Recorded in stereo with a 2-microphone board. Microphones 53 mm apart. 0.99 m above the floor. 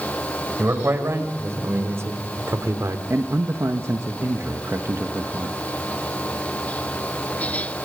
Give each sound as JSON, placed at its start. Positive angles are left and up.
{"t": 0.6, "sound": "a man speaking", "side_deg": -50, "distance_m": 5.5}
{"t": 3.1, "sound": "a man speaking", "side_deg": -60, "distance_m": 1.5}